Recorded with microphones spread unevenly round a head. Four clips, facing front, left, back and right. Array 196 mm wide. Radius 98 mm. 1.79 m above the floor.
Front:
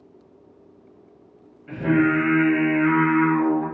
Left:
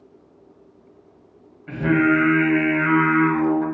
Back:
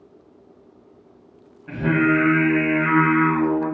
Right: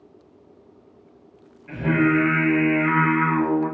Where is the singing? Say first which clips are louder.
Left 2 dB, even; 120° left, 1.0 m.